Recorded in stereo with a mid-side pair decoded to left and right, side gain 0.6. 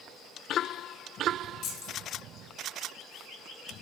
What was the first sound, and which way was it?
Keys jangling, 65° left.